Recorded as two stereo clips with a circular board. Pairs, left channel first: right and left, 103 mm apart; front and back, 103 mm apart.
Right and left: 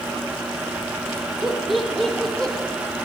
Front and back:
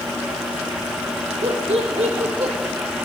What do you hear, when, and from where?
1.4 s laughter: 175° left, 1.5 m; by 2.5 s 170° right, 1.9 m